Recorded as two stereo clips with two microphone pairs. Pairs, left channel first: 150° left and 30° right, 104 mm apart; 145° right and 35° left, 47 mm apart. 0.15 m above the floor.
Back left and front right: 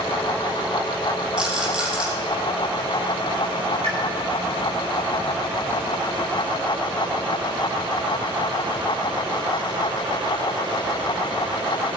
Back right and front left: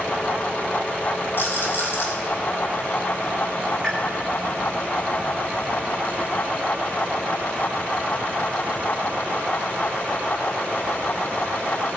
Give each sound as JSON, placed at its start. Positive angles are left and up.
{"t": 1.4, "sound": "a rattle", "azimuth_deg": -115, "distance_m": 4.0}
{"t": 3.8, "sound": "a pop", "azimuth_deg": -50, "distance_m": 5.0}